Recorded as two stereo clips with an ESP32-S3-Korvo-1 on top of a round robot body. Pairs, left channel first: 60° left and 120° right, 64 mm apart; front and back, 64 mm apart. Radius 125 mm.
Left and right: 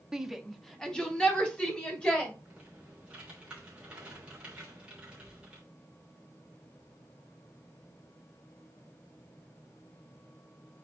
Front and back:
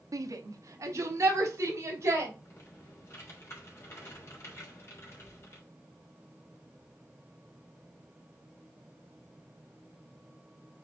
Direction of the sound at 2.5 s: 45° right.